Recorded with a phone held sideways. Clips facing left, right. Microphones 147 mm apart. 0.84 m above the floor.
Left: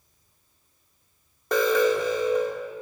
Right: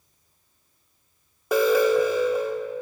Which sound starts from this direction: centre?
An alarm, at 1.5 s.